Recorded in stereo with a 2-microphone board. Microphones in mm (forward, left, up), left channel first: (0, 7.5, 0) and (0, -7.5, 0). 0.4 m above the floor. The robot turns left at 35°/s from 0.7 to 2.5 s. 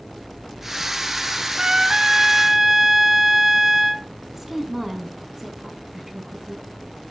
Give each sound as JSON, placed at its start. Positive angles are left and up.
{"t": 1.6, "sound": "a trumpet", "azimuth_deg": -125, "distance_m": 0.7}
{"t": 4.3, "sound": "a woman speaking", "side_deg": -20, "distance_m": 3.5}